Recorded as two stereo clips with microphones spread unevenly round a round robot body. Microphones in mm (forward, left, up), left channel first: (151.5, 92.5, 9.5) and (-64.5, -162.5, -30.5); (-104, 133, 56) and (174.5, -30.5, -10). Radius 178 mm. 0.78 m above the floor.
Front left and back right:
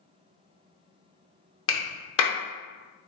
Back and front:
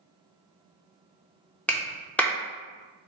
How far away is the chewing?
No chewing in this recording.